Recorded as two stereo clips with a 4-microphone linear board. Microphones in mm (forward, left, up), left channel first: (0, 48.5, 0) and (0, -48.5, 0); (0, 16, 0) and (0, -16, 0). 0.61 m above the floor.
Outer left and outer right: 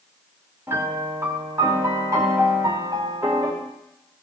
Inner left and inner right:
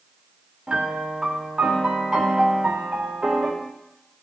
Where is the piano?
30° right (ahead or behind), 2.5 m.